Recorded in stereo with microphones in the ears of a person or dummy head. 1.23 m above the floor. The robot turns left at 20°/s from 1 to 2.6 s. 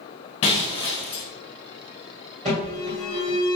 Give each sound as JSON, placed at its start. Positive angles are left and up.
{"t": 0.4, "sound": "breaking glass", "side_deg": 35, "distance_m": 0.6}
{"t": 2.5, "sound": "an alarm", "side_deg": -35, "distance_m": 1.5}